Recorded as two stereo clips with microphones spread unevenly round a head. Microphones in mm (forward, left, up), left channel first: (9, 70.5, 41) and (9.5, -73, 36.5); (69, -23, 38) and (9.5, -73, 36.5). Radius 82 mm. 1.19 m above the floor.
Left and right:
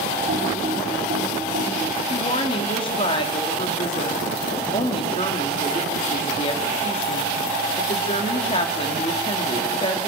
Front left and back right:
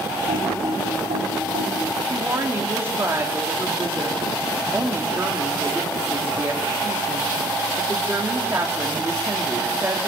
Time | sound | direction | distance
0.3 | typing on a keyboard | 135° right | 4.5 m
2.1 | a woman speaking | 145° left | 2 m